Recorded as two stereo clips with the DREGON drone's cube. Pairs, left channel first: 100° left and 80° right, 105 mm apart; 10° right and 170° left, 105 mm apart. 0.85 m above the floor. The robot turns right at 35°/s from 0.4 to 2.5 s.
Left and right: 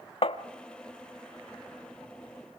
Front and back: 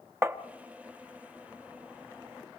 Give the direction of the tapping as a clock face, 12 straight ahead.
8 o'clock.